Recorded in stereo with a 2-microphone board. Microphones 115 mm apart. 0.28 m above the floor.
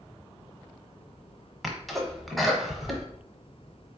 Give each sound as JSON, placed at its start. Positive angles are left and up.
{"t": 1.6, "sound": "a sneeze", "side_deg": 0, "distance_m": 1.1}